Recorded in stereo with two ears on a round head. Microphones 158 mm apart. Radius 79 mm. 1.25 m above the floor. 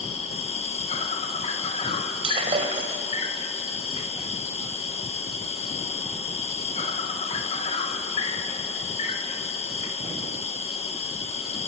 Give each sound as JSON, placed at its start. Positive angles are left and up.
{"t": 0.0, "sound": "an insect", "side_deg": 35, "distance_m": 1.8}
{"t": 2.2, "sound": "breaking glass", "side_deg": -30, "distance_m": 2.5}